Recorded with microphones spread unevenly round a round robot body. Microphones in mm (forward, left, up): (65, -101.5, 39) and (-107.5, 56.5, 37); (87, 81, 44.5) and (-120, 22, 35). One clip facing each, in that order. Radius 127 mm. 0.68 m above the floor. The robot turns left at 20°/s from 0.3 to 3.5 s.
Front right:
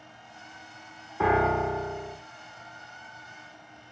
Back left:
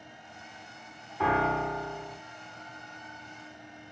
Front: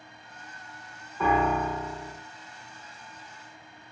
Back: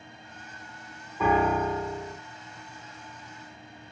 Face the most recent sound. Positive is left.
turn(degrees=-125)